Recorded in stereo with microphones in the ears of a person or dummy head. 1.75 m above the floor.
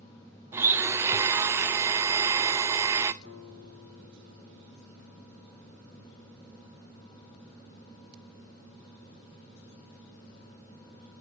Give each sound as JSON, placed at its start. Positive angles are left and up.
{"t": 0.5, "sound": "a blender", "side_deg": -15, "distance_m": 0.6}
{"t": 3.2, "sound": "a guitar", "side_deg": 60, "distance_m": 5.5}